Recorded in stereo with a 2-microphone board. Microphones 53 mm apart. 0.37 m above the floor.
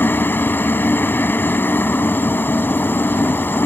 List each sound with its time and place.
0.0 s a helicopter: 40° left (ahead or behind)